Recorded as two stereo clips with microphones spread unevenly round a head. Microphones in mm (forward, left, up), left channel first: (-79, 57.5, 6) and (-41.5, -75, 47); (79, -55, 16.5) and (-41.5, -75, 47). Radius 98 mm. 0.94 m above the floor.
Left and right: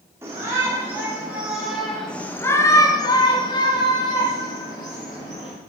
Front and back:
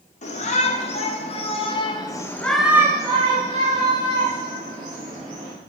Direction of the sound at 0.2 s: 5° left.